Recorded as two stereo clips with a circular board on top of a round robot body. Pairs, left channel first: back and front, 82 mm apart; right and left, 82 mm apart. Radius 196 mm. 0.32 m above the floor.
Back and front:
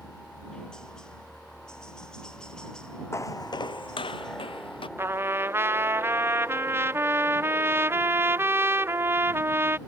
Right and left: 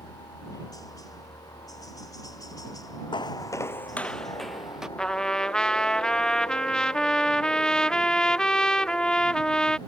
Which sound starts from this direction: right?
A helicopter, at 0.0 s.